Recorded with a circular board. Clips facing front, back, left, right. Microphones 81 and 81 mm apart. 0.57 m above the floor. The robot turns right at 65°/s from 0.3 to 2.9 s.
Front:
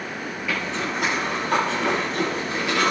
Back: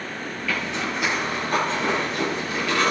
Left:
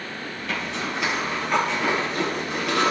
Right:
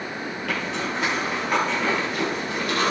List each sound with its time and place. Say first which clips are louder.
0.5 s a zipper: even, right 1 dB; 75° right, 6.5 m; by 2.9 s 85° left, 6.5 m